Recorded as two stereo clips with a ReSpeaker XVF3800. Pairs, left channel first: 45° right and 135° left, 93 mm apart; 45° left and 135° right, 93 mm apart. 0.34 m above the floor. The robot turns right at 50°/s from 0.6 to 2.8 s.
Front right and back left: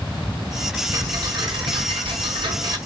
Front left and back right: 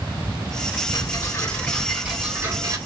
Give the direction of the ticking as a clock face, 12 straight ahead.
9 o'clock.